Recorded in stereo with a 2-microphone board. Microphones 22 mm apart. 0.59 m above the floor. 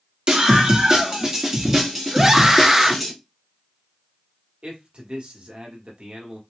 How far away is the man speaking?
About 1.3 m.